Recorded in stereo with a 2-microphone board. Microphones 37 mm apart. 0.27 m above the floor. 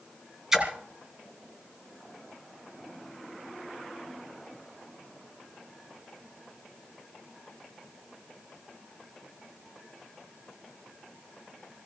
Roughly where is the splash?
Centre.